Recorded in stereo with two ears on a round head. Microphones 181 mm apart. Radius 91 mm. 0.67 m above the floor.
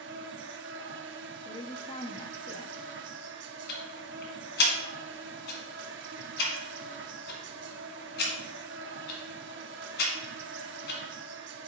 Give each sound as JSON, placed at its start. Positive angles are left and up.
{"t": 0.0, "sound": "an insect", "side_deg": -60, "distance_m": 0.7}
{"t": 1.4, "sound": "a woman speaking", "side_deg": 25, "distance_m": 0.6}
{"t": 3.7, "sound": "ticking", "side_deg": 55, "distance_m": 1.7}